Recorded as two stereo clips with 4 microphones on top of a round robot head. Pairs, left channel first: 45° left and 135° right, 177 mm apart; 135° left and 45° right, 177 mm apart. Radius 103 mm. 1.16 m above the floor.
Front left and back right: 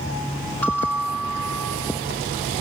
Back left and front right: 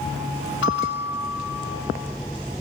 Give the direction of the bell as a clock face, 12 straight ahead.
8 o'clock.